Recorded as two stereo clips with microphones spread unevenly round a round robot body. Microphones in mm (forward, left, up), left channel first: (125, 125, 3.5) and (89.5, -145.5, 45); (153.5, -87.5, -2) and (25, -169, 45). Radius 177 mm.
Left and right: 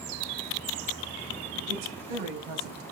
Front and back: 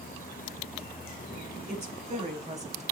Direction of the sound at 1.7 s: 100° right.